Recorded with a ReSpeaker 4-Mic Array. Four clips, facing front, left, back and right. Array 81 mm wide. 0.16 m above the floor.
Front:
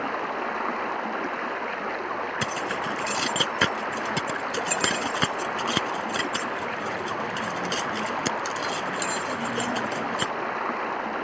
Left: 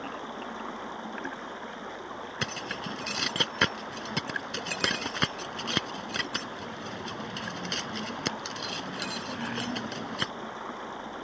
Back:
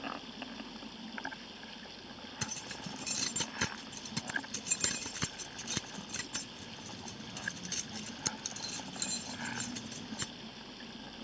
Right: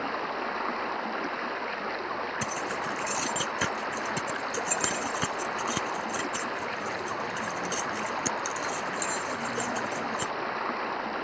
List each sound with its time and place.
0.0 s running water: 20° right
2.4 s keys jangling: 25° left